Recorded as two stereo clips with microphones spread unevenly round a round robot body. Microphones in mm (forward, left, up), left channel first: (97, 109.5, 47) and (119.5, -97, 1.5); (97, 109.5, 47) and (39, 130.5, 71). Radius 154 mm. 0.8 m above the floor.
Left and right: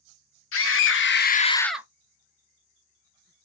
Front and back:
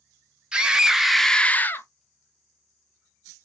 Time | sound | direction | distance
0.5 | a scream | 75° left | 1.1 m